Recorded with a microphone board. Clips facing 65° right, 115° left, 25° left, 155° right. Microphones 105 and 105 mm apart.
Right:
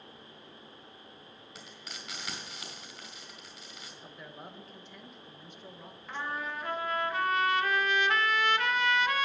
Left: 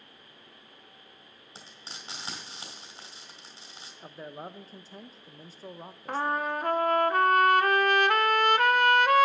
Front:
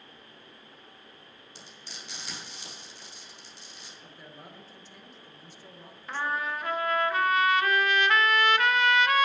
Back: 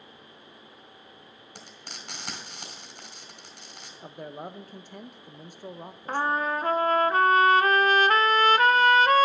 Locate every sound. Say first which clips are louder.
1.6 s frying: left 1 dB, back 3 dB; 170° left, 3.5 m
4.0 s a man speaking: left 8 dB, back 12 dB; 170° left, 0.6 m
6.1 s a trumpet: left 8 dB, back 5 dB; 150° left, 0.6 m